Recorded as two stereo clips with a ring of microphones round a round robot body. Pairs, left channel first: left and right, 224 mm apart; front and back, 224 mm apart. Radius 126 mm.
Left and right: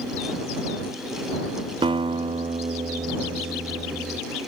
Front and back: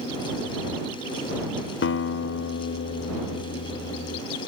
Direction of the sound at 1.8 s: 25° right.